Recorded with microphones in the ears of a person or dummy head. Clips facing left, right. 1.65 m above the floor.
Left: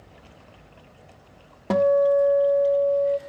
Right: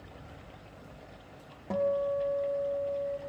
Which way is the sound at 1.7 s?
90° left.